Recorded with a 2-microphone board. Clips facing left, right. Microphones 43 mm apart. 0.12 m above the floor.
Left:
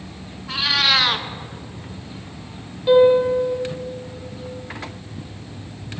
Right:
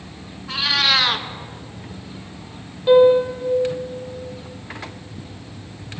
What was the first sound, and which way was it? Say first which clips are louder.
A cat meowing: even; centre (ahead or behind).